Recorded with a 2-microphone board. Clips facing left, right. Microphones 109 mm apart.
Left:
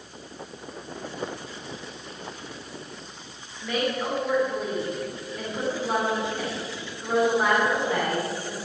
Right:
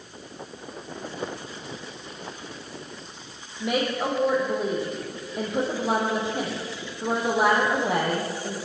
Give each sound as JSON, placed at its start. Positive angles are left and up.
{"t": 3.6, "sound": "a woman speaking", "side_deg": -80, "distance_m": 5.5}